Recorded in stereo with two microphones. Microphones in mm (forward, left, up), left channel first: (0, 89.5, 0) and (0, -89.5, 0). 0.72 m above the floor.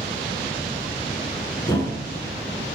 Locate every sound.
1.7 s a thud: 15° left (ahead or behind), 1.6 m